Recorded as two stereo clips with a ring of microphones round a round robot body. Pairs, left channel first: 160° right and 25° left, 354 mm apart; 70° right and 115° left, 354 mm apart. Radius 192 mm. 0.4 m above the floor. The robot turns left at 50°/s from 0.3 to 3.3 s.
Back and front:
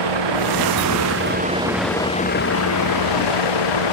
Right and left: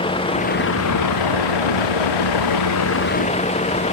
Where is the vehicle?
10° left; by 3.9 s 140° right.